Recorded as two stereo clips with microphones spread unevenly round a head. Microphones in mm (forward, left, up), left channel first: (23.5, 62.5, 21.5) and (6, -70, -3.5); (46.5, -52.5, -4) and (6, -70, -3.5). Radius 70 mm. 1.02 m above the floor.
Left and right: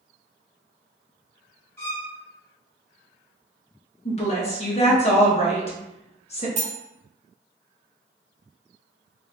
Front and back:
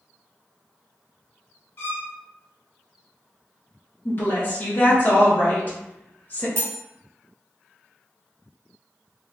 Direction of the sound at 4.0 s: 50° left.